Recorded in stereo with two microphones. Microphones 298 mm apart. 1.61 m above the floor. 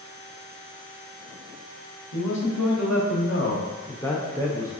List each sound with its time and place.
2.1 s a man speaking: 70° left (ahead or behind), 1.4 m; by 4.7 s 25° right (ahead or behind), 0.7 m